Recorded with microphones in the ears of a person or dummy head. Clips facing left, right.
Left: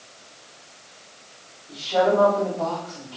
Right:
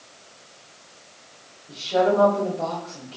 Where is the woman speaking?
30° right (ahead or behind), 2 m.